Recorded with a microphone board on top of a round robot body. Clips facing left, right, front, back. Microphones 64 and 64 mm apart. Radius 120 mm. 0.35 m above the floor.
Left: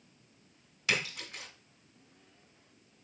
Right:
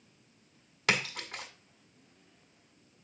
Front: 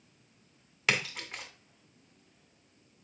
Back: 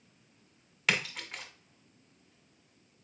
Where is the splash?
85° right, 1.8 m.